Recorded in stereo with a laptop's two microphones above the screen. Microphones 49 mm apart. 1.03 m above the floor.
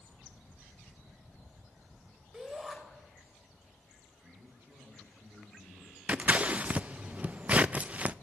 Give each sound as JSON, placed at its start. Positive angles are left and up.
{"t": 2.3, "sound": "a shout", "side_deg": -10, "distance_m": 3.5}
{"t": 4.2, "sound": "a man speaking", "side_deg": -60, "distance_m": 9.5}
{"t": 6.1, "sound": "scissors", "side_deg": -30, "distance_m": 0.5}